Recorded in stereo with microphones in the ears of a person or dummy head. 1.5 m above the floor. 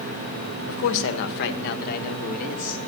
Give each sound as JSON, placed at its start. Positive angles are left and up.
{"t": 0.7, "sound": "a man speaking", "side_deg": 70, "distance_m": 1.0}